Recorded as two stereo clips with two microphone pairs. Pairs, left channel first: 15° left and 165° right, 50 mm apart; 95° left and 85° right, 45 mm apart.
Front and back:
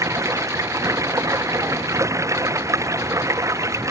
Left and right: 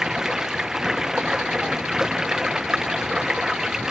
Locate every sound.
0.0 s running water: 160° right